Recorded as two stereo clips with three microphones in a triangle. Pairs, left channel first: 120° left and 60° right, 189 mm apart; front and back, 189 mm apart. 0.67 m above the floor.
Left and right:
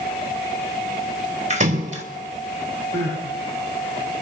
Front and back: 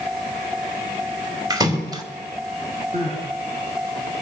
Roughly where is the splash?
Right.